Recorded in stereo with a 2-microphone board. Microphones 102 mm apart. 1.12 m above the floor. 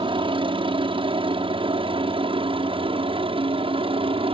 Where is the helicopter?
55° right (ahead or behind); by 4.3 s 60° right (ahead or behind).